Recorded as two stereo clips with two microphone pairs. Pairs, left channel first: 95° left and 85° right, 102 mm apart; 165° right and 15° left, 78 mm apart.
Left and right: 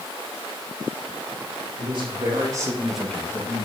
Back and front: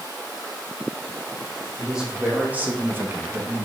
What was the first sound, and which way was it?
A man speaking, 65° right.